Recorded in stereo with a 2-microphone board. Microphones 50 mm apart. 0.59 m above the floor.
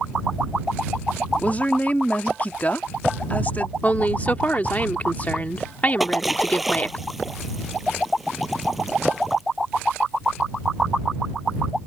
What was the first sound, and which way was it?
A woman speaking, 35° left (ahead or behind).